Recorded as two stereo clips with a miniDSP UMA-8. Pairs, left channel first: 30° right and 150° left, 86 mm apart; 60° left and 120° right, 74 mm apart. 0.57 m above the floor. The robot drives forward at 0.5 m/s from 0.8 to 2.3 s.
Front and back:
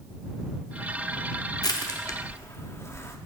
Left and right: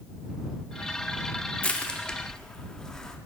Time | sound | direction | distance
1.6 | crushing | 5° right | 0.8 m